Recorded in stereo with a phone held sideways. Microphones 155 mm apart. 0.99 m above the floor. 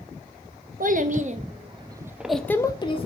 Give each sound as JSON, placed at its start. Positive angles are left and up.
{"t": 0.8, "sound": "a child speaking", "side_deg": -60, "distance_m": 0.9}